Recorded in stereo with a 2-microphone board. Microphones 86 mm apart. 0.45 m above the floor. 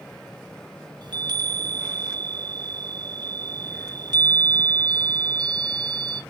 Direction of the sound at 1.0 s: 55° right (ahead or behind).